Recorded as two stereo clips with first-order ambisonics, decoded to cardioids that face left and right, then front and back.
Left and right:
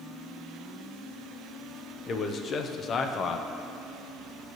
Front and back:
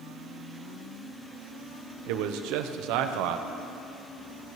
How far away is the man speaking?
About 0.6 m.